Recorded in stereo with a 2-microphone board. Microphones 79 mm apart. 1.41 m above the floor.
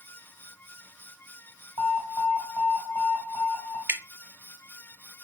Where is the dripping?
25° right (ahead or behind), 0.5 m.